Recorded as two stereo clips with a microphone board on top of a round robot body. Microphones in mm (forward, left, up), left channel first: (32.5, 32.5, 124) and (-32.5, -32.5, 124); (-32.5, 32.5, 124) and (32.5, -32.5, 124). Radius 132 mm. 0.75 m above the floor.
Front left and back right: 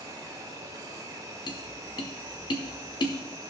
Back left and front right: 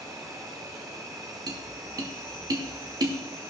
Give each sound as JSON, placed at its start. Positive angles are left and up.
{"t": 0.0, "sound": "an insect", "azimuth_deg": -90, "distance_m": 3.5}
{"t": 1.5, "sound": "tapping", "azimuth_deg": 5, "distance_m": 1.1}